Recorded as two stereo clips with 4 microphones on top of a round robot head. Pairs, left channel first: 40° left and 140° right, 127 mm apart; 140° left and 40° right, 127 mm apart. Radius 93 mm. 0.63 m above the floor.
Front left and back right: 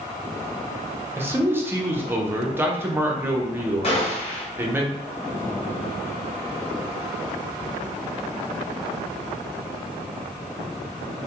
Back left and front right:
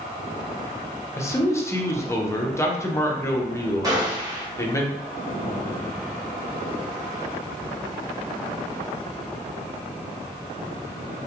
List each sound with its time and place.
1.2 s a man speaking: 175° left, 0.6 m
3.8 s a gunshot: 15° left, 1.1 m